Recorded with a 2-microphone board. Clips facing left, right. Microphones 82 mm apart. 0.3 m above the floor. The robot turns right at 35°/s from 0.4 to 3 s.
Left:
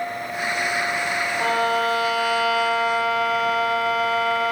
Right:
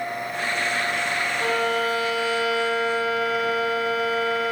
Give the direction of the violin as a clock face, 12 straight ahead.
11 o'clock.